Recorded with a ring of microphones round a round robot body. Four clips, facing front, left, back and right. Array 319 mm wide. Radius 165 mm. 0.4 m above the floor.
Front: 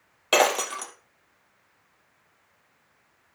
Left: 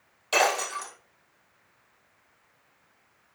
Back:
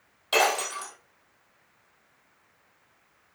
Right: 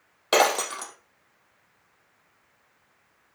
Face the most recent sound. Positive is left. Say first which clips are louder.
# right 3 dB, front 3 dB
turn(degrees=-55)